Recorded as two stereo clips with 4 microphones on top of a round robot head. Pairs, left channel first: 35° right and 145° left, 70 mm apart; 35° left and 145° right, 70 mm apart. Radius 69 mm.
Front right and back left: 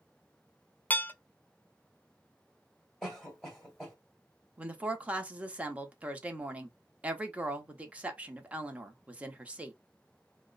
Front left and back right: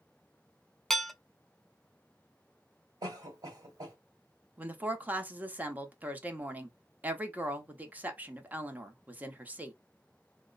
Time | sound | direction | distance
0.9 | dishes clattering | 45° right | 0.5 m
3.0 | a cough | 120° right | 2 m
4.6 | a woman speaking | 170° right | 0.9 m